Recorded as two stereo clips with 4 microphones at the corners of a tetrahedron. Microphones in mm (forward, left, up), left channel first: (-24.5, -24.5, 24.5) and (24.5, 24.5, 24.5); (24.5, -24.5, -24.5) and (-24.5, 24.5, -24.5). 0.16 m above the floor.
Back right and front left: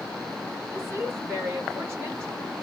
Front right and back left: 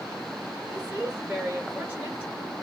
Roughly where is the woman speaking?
Left.